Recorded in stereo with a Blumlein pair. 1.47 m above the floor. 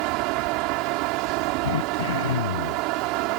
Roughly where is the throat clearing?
Ahead left.